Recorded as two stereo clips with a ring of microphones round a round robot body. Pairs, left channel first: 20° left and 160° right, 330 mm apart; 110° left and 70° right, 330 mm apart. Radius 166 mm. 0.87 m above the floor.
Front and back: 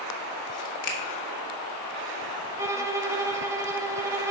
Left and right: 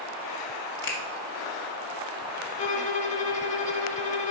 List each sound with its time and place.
0.8 s a finger snap: 60° left, 1.6 m
2.6 s a violin: 135° left, 0.6 m